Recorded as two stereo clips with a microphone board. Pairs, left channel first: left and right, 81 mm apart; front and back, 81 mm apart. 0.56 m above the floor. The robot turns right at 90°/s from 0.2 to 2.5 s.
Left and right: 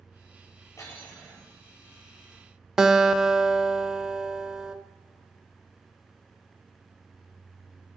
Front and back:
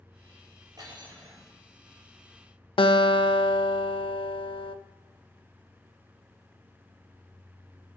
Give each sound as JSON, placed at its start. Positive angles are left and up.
{"t": 0.8, "sound": "cutlery clinking", "azimuth_deg": 140, "distance_m": 7.5}
{"t": 2.8, "sound": "a guitar", "azimuth_deg": -10, "distance_m": 0.6}